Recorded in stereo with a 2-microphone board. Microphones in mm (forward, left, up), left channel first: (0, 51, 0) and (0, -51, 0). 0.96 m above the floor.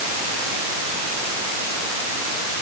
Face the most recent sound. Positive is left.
No sound to turn to.